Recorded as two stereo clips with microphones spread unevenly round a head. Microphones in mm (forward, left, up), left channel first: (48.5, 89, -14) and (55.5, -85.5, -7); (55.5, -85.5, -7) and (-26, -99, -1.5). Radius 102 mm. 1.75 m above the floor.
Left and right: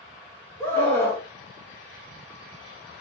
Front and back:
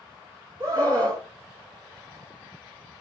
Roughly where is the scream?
Behind.